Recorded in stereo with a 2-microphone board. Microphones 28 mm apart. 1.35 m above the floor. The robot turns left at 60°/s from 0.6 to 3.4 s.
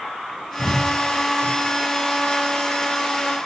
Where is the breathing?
65° left (ahead or behind), 0.8 m; by 1.6 s 50° left (ahead or behind), 0.8 m.